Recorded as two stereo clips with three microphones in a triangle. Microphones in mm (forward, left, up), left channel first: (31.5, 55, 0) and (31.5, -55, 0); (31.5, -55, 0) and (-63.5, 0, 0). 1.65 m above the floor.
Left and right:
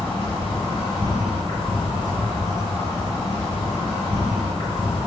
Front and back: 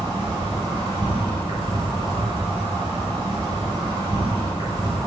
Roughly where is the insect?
Left.